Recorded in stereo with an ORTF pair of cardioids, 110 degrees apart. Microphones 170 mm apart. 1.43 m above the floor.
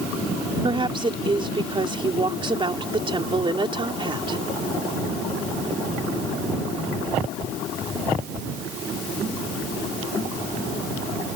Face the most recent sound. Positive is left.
turn(degrees=-30)